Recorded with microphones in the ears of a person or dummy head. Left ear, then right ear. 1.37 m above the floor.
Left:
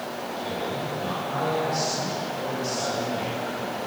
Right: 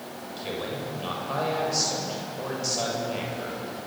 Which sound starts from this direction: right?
A man speaking, at 0.4 s.